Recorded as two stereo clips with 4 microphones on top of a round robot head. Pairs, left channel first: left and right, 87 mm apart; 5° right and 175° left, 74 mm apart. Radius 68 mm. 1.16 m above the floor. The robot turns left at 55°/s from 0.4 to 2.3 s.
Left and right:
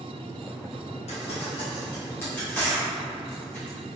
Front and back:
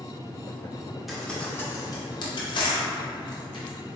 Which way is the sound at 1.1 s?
85° left.